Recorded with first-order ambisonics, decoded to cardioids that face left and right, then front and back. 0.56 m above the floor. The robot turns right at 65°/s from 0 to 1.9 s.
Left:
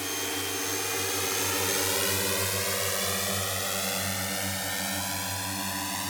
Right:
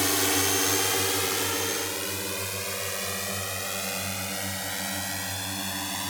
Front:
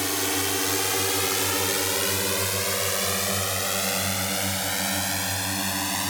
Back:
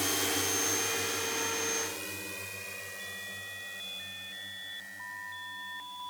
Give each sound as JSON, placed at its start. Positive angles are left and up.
{"t": 0.0, "sound": "a drone", "azimuth_deg": -60}